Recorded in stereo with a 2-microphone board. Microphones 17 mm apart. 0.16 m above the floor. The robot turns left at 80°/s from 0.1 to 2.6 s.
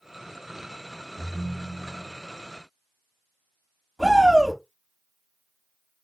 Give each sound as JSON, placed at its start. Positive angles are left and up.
{"t": 1.2, "sound": "a ringtone", "azimuth_deg": 10, "distance_m": 0.6}
{"t": 4.0, "sound": "a shout", "side_deg": -30, "distance_m": 1.5}